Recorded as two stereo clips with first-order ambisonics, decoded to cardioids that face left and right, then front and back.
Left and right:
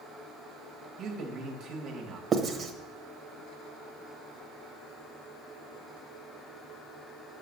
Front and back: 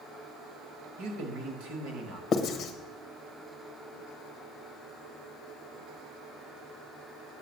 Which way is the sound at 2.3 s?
35° right.